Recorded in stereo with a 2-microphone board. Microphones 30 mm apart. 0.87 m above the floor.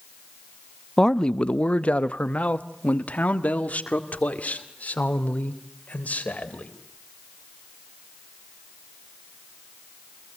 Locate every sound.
1.0 s a man speaking: 20° left (ahead or behind), 0.5 m; by 6.7 s 60° left (ahead or behind), 4 m